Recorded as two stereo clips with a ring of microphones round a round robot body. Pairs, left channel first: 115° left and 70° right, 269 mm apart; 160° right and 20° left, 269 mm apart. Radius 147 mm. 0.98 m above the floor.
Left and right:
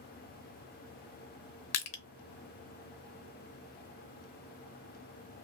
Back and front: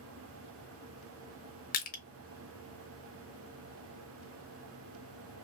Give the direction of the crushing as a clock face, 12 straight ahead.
7 o'clock.